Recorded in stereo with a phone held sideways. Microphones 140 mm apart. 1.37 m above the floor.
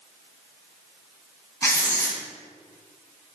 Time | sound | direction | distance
1.6 | writing | 20° left (ahead or behind) | 2 m